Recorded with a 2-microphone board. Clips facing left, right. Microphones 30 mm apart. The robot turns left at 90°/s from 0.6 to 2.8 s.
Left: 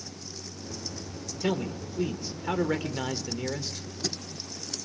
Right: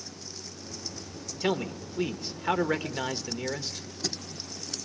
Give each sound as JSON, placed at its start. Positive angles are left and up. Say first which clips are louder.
{"t": 1.4, "sound": "a man speaking", "louder": "right 1 dB", "azimuth_deg": -35, "distance_m": 1.2}